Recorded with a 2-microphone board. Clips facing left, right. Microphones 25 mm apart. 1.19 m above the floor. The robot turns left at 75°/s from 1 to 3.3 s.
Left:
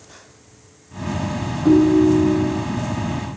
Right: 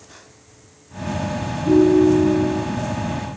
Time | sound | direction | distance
1.6 | a ringtone | 85° left | 1.0 m